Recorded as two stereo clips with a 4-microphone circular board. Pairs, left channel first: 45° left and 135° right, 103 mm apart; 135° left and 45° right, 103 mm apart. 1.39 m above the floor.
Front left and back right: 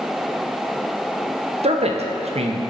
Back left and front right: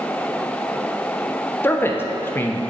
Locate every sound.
1.6 s a man speaking: 155° right, 0.6 m